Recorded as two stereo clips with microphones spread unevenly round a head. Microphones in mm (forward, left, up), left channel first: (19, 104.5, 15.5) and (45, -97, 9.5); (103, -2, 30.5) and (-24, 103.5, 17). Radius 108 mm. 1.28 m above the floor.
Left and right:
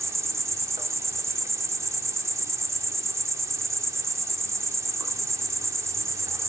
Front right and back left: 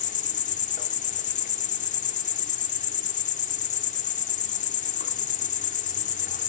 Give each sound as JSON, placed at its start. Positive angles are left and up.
{"t": 0.0, "sound": "an insect", "azimuth_deg": -10, "distance_m": 1.5}